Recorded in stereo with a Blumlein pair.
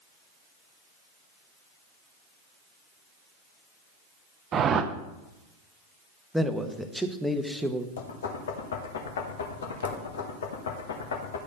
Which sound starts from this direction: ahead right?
A whoosh, at 4.5 s.